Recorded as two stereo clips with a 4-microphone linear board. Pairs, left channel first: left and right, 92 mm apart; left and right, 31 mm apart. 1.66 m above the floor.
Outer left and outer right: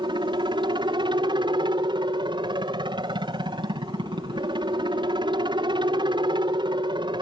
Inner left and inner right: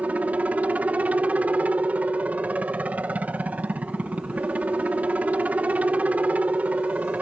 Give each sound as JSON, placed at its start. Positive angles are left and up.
{"t": 0.0, "sound": "a helicopter", "side_deg": -60}